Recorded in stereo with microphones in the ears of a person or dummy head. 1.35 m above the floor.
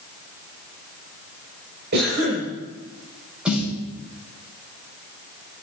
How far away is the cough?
About 5.5 m.